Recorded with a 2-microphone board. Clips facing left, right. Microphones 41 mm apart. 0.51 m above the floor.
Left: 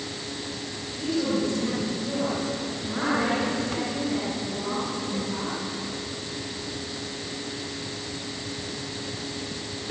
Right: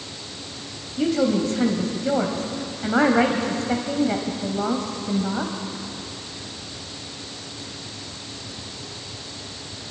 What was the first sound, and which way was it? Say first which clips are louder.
A woman speaking: right 5 dB; 55° right (ahead or behind).